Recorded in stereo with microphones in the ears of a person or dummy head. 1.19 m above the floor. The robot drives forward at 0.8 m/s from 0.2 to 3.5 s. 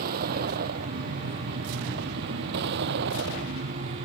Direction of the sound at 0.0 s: 50° right (ahead or behind).